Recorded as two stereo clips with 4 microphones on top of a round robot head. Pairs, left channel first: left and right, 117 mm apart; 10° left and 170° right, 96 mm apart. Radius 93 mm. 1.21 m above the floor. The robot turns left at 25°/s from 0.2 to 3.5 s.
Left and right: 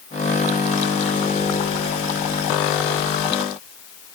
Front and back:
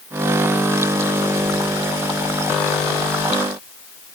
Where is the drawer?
I don't hear a drawer.